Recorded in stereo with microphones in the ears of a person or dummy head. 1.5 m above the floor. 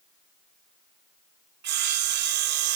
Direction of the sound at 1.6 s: 55° right (ahead or behind).